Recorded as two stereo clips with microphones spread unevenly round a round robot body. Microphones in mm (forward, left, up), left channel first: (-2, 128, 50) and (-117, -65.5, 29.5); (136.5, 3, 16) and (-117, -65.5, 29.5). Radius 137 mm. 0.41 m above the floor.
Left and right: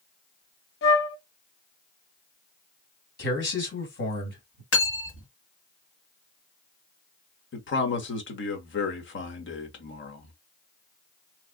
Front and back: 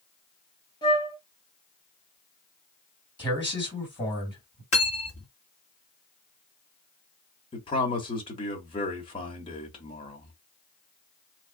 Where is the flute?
90° left, 0.7 m.